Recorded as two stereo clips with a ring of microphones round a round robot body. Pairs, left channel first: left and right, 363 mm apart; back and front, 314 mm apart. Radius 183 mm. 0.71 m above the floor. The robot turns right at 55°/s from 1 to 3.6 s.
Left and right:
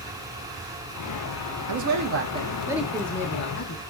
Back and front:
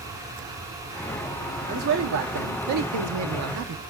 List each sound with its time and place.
1.7 s a man speaking: 65° right, 0.9 m; by 3.8 s 40° left, 0.9 m